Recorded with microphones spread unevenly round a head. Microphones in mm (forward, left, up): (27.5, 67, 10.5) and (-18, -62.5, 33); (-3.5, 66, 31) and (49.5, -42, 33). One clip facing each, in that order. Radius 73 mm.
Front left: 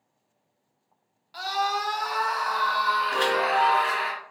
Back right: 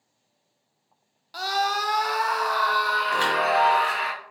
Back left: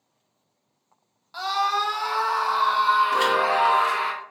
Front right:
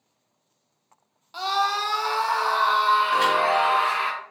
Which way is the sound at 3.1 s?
170° right.